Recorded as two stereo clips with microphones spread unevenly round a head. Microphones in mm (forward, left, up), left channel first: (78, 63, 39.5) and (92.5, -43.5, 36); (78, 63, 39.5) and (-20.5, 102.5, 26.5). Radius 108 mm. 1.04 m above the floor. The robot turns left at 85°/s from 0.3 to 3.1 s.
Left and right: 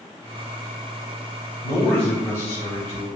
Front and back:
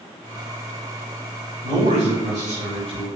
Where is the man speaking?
125° right, 4.5 m; by 3.1 s 110° left, 4.5 m.